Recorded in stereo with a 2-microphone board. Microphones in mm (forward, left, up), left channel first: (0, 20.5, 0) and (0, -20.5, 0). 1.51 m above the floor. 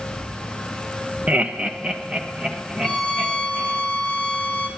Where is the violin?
15° left (ahead or behind), 1.0 m.